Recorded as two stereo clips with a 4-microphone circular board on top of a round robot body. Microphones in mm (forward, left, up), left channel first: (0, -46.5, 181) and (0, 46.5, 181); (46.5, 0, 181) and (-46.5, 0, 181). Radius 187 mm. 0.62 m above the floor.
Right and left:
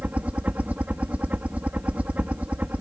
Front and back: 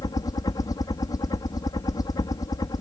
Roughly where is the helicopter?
Ahead.